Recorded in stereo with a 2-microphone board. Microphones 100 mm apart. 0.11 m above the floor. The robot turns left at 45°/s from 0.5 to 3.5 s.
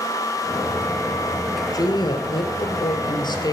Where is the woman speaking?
130° left, 2 m; by 3.5 s 55° left, 2 m.